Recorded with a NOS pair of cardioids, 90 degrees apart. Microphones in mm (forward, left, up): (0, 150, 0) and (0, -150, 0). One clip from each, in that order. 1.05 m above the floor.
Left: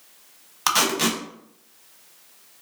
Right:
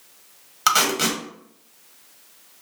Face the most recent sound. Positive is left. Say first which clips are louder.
# right 2 dB
turn(degrees=-5)